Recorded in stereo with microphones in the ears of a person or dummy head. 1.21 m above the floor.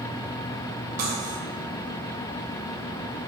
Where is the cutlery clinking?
45° right (ahead or behind), 2.5 m.